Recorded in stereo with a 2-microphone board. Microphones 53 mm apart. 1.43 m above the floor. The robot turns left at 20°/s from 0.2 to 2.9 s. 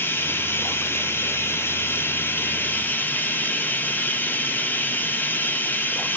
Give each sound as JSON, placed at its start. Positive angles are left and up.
{"t": 0.0, "sound": "running water", "azimuth_deg": 110, "distance_m": 1.2}